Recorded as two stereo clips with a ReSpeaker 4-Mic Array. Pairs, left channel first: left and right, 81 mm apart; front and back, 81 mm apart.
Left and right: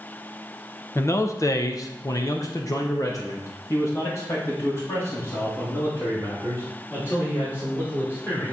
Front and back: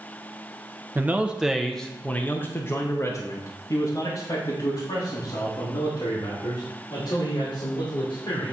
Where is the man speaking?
130° left, 0.7 m; by 8.5 s 30° left, 3.5 m.